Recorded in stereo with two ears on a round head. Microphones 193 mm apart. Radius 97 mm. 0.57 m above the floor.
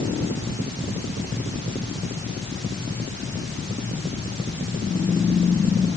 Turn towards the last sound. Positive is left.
No sound to turn to.